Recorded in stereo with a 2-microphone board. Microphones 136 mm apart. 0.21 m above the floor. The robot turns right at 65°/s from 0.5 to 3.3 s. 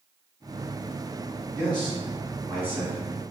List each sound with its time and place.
1.6 s a man speaking: 10° left (ahead or behind), 1.5 m; by 3.0 s 15° right (ahead or behind), 1.5 m